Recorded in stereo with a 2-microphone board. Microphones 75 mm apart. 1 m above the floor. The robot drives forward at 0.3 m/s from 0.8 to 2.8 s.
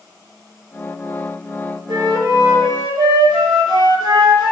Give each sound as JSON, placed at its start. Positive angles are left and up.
{"t": 1.9, "sound": "a flute", "side_deg": -75, "distance_m": 0.8}